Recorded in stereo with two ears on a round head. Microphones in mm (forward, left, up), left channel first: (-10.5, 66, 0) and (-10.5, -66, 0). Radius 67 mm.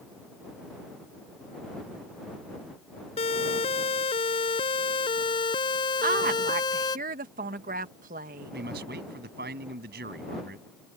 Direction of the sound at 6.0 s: 65° right (ahead or behind).